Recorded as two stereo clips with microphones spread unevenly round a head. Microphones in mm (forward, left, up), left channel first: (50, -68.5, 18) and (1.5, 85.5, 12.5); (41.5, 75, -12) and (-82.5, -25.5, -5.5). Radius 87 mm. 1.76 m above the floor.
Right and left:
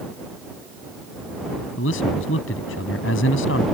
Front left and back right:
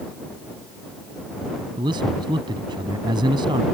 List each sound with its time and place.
1.8 s a man speaking: 75° right